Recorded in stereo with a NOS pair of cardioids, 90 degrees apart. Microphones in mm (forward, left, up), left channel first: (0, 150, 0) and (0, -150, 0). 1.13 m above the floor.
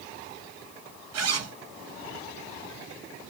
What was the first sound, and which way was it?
A zipper, 55° right.